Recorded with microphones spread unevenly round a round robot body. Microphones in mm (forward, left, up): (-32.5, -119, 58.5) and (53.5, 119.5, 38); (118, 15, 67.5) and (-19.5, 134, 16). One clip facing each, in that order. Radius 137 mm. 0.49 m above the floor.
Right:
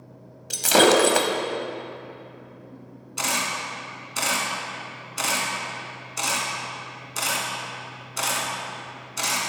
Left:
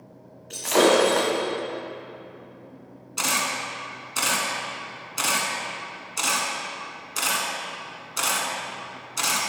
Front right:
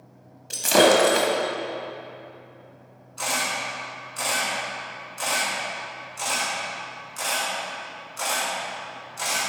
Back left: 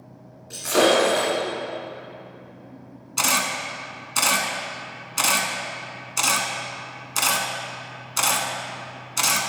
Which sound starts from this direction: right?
Breaking glass, at 0.5 s.